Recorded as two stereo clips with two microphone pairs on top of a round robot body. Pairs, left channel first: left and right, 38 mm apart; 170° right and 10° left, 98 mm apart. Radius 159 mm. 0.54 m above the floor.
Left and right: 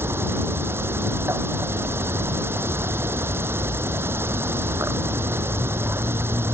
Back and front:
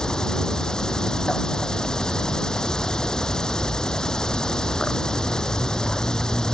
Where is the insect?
85° right.